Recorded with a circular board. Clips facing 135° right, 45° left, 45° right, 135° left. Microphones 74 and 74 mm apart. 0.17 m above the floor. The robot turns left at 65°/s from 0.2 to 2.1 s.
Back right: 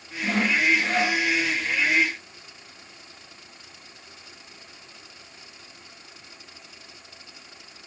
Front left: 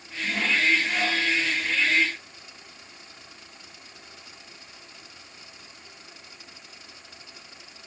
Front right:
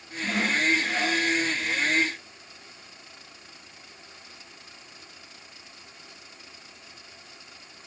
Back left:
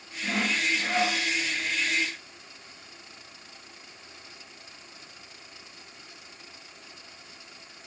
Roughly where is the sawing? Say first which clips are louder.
Back right 2 dB, front right 3 dB; behind right.